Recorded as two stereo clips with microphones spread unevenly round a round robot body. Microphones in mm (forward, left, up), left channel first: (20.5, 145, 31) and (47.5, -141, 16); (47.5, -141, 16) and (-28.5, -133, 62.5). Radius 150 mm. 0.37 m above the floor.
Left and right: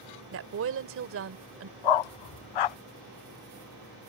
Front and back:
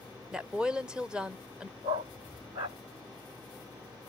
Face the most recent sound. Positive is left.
turn(degrees=105)